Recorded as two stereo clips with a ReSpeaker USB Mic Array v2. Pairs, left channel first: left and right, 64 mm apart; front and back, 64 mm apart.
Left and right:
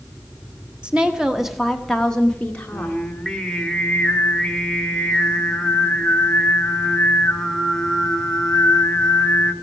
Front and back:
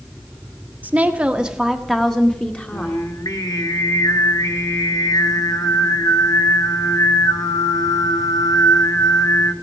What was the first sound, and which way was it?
A woman speaking, 145° right.